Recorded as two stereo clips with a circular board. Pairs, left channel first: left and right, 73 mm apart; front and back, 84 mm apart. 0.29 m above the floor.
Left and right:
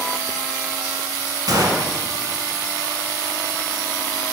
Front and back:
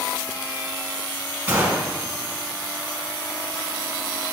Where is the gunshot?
115° right, 1.0 m.